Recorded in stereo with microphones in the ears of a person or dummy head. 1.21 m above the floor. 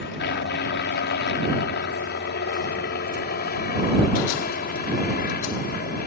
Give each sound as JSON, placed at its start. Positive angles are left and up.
{"t": 0.0, "sound": "a helicopter", "side_deg": 50}